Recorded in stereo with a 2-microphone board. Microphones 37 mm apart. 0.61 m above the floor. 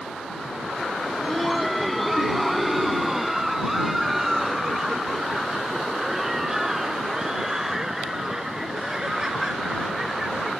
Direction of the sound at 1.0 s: 5° left (ahead or behind).